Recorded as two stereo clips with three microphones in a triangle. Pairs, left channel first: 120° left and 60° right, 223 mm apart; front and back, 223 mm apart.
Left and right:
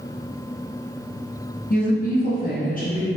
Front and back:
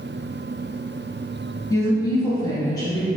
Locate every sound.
1.7 s a woman speaking: 70° left, 0.8 m